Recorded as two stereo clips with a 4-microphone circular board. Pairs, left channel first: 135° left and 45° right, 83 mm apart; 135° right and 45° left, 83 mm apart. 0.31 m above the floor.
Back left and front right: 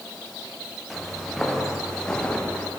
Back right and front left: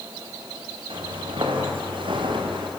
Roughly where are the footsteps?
Ahead left.